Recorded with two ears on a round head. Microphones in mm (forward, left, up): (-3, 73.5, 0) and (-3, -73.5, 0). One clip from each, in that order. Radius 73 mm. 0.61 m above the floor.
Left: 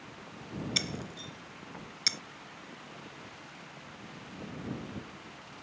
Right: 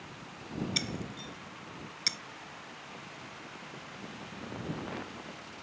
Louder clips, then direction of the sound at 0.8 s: Left 3 dB; 15° left (ahead or behind).